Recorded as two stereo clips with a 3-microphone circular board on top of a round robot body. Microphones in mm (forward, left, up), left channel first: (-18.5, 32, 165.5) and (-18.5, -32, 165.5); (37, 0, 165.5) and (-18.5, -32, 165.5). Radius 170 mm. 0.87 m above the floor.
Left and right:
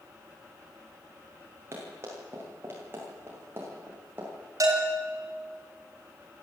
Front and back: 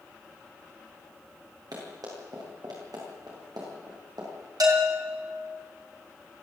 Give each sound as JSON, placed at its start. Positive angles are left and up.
{"t": 1.7, "sound": "running footsteps", "azimuth_deg": -140, "distance_m": 10.0}
{"t": 4.6, "sound": "a bell", "azimuth_deg": -125, "distance_m": 4.0}